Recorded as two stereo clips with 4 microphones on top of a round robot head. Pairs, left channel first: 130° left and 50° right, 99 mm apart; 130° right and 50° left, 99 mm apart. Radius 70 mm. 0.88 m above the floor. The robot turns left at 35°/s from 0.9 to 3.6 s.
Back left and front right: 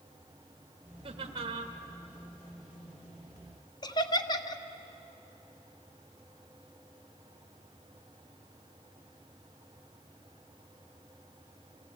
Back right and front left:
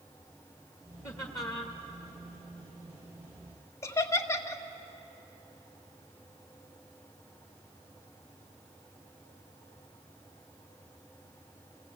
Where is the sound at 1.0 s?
75° right, 1.7 m; by 1.8 s 100° right, 1.7 m.